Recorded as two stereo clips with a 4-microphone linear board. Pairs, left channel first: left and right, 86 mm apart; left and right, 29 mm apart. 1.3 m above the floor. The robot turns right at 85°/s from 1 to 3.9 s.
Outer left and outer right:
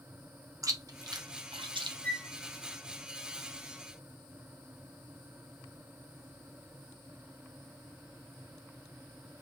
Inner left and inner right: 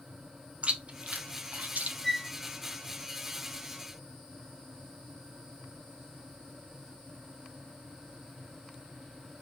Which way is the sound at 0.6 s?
40° right (ahead or behind).